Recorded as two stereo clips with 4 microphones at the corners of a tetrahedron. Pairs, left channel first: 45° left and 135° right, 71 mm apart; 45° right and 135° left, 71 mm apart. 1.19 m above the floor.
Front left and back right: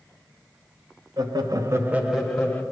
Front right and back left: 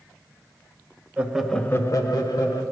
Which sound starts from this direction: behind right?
Laughter, at 1.2 s.